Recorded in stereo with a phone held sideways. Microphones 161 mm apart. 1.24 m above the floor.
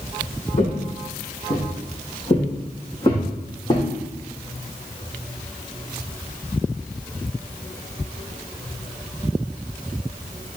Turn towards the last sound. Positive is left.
turn(degrees=30)  # may be behind; listen again after turning